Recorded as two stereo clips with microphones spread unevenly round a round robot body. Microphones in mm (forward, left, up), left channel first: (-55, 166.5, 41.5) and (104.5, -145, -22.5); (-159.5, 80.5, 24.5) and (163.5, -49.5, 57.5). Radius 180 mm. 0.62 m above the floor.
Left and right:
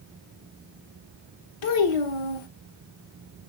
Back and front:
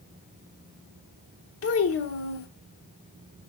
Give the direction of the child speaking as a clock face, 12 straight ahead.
8 o'clock.